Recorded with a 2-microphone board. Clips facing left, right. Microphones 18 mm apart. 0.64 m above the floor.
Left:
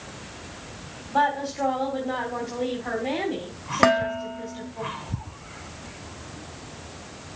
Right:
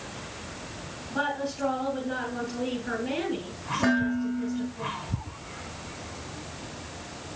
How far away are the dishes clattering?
About 1.7 m.